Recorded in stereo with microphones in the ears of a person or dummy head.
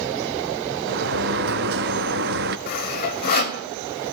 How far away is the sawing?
About 2.5 m.